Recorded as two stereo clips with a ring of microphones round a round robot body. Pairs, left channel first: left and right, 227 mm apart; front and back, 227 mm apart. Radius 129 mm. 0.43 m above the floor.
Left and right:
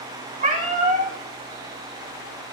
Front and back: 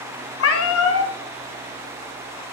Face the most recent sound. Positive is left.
turn(degrees=-25)